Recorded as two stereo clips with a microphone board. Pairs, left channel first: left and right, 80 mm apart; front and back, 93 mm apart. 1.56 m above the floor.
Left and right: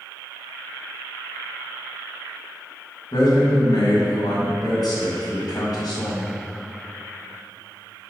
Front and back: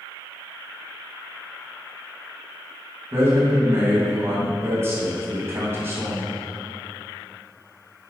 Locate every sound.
3.1 s a man speaking: 120° left, 2.5 m